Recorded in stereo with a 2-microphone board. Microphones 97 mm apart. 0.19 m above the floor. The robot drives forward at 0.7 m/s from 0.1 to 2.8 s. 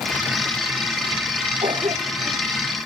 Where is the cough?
60° right (ahead or behind).